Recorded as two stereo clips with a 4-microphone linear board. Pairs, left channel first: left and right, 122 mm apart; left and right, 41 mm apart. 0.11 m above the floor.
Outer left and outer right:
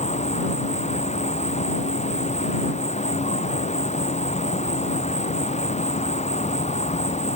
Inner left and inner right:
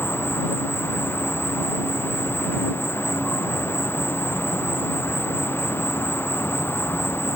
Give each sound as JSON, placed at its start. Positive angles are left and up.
{"t": 0.0, "sound": "an insect", "side_deg": 65}